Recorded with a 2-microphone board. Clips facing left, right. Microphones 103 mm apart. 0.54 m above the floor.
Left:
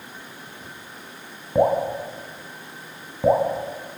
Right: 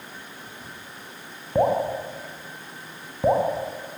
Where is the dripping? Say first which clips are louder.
Left 2 dB; centre (ahead or behind), 4 m.